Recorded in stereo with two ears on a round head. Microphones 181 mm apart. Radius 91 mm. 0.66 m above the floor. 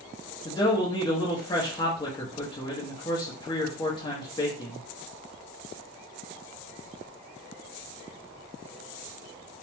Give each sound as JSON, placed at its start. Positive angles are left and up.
{"t": 0.5, "sound": "a man speaking", "side_deg": 20, "distance_m": 0.6}